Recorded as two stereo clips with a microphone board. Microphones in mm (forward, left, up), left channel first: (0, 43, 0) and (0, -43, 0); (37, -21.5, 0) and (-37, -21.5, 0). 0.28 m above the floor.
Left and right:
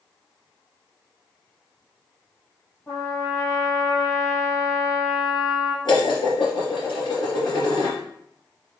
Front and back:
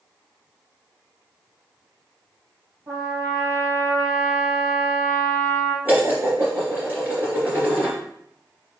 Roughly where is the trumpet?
Behind left.